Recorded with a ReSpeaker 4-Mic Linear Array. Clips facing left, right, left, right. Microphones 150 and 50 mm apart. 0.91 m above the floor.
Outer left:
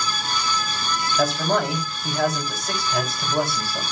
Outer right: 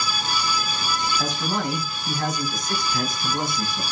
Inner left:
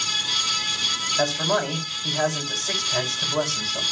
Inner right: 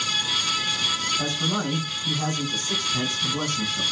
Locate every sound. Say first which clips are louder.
1.2 s a man speaking: outer left 5 dB, inner left 4 dB; 85° left, 6 m